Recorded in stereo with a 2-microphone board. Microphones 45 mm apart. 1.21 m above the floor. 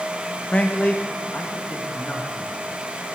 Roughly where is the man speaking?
Left.